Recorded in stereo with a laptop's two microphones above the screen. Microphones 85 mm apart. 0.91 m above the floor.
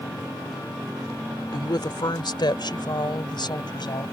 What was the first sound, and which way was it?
A woman speaking, 60° left (ahead or behind).